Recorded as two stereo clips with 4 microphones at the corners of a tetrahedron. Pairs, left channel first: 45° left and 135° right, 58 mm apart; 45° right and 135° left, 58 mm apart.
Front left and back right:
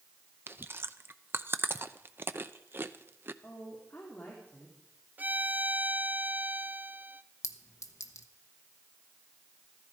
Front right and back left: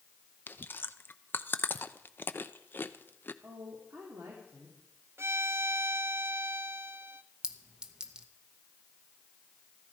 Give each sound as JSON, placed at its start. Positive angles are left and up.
{"t": 0.5, "sound": "chewing", "azimuth_deg": -90, "distance_m": 0.6}
{"t": 3.4, "sound": "a woman speaking", "azimuth_deg": 100, "distance_m": 2.5}
{"t": 5.2, "sound": "a violin", "azimuth_deg": 170, "distance_m": 0.5}
{"t": 7.4, "sound": "a clink", "azimuth_deg": 60, "distance_m": 0.9}